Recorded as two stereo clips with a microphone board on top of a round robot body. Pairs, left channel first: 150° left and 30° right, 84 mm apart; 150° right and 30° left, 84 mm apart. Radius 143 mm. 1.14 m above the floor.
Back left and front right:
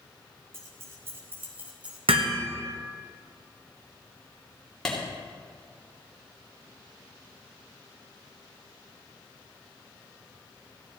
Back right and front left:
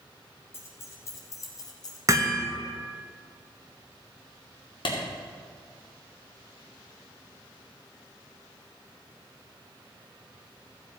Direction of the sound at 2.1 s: 25° right.